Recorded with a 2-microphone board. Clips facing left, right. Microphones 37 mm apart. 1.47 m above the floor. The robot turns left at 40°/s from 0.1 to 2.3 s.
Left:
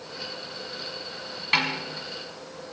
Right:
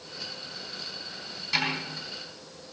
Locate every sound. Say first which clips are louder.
1.5 s a snare drum: left 4 dB; 45° left (ahead or behind), 6 m; by 1.7 s 40° left (ahead or behind), 6 m